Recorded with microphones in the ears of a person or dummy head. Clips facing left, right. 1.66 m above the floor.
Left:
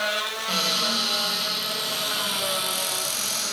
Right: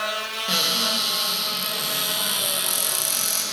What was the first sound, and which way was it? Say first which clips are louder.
A cupboard door: right 1 dB; 10° right (ahead or behind).